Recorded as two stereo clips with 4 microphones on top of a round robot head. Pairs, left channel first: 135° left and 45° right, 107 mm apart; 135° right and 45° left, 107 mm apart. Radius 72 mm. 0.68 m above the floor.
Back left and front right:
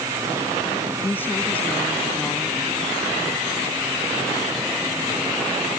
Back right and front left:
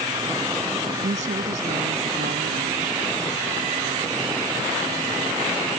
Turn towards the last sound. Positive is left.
turn(degrees=50)